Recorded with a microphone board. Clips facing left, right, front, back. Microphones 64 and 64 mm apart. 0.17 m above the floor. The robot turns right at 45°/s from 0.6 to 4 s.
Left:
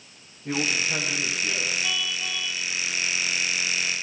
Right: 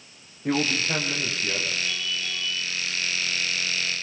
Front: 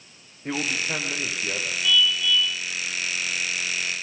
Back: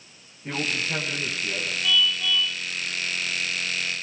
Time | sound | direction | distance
0.5 | a man speaking | 65° right | 8 m
1.8 | a car horn | 95° left | 6 m